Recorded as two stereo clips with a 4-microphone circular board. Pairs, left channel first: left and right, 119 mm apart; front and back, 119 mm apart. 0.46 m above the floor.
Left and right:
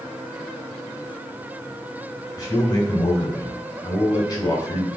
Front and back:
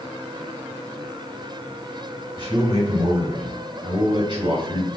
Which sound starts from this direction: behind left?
A man speaking, at 2.4 s.